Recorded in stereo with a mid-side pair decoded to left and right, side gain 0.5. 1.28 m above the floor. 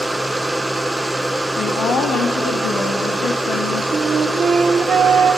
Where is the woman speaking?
60° left, 2 m.